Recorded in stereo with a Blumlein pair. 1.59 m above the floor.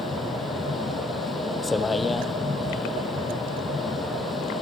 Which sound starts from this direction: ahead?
A vehicle, at 0.0 s.